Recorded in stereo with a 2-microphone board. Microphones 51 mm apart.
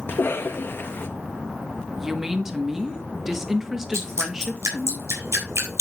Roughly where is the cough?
Left.